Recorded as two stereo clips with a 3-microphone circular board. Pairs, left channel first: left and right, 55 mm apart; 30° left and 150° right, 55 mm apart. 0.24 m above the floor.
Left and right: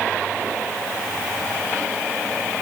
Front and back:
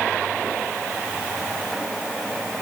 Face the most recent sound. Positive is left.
No sound to turn to.